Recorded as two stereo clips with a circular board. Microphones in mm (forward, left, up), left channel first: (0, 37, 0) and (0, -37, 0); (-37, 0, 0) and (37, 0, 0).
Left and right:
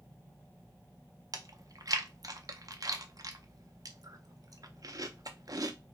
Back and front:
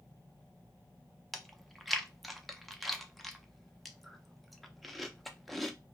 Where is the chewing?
90° right, 0.6 m.